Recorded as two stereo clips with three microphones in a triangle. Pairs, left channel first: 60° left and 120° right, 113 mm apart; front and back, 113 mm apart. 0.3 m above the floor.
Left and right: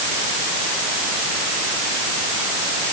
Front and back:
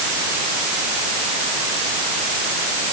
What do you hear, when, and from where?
Only background noise.